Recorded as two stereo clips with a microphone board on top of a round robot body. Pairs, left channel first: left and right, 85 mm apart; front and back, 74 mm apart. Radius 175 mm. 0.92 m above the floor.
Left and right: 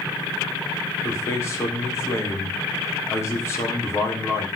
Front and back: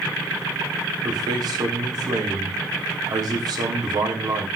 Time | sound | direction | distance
1.0 | a man speaking | 150° left | 3.5 m